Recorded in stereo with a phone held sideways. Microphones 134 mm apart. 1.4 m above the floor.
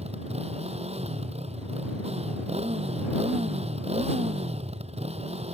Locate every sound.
0.0 s a motorcycle: 50° right (ahead or behind)